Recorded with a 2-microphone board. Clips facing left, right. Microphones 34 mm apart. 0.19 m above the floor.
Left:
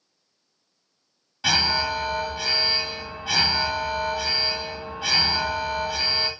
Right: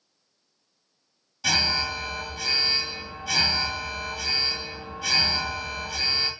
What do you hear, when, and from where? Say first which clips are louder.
1.4 s an alarm: left 3 dB; 30° left (ahead or behind), 0.7 m